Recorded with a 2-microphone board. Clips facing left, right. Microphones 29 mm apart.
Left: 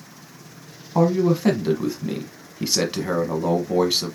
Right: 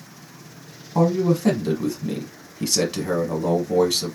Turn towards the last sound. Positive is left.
turn(degrees=20)  # may be behind; listen again after turning